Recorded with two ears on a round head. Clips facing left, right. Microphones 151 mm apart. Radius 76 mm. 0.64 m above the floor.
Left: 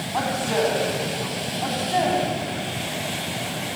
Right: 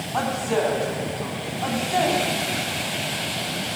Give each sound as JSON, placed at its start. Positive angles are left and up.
{"t": 0.1, "sound": "a woman speaking", "side_deg": 5, "distance_m": 5.5}